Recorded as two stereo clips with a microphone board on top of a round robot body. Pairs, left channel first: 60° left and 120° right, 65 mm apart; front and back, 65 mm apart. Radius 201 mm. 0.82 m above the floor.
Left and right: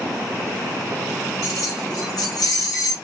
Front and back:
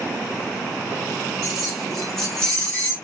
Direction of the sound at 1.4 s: 100° left.